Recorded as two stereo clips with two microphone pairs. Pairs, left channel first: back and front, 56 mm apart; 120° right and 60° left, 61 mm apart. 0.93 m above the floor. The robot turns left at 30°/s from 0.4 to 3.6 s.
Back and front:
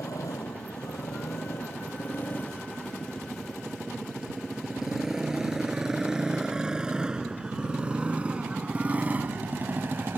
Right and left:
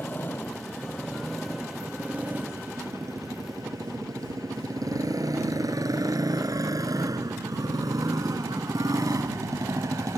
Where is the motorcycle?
Straight behind; by 10.2 s 40° left.